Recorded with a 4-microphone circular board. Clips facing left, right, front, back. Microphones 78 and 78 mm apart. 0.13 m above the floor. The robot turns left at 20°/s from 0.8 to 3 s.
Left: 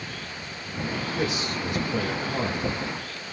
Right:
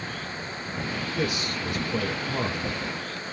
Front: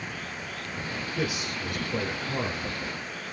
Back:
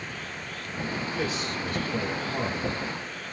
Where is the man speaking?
65° left, 1.2 m; by 2.7 s 30° left, 1.2 m.